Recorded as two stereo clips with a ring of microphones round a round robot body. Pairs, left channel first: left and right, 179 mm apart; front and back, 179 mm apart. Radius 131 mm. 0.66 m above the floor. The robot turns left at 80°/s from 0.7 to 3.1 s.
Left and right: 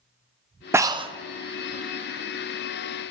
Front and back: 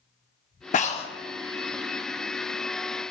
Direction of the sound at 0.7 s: 20° right.